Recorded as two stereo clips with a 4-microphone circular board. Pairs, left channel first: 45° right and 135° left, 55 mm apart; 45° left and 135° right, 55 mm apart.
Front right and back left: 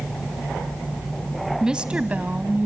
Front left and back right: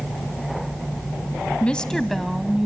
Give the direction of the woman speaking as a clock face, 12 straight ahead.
9 o'clock.